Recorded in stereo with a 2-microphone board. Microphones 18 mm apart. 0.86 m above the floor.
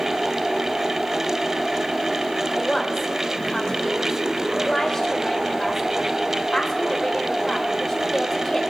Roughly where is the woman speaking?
Left.